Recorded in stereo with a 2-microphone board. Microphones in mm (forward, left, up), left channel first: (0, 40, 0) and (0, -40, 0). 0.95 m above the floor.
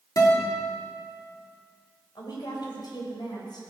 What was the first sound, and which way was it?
A guitar, 45° left (ahead or behind).